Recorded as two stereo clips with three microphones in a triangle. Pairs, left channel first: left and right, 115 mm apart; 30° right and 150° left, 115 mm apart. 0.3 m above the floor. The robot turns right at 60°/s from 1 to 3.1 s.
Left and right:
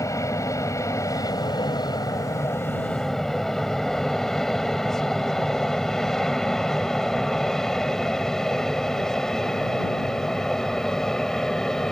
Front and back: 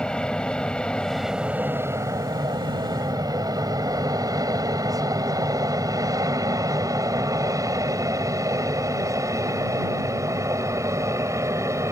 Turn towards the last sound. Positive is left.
turn(degrees=170)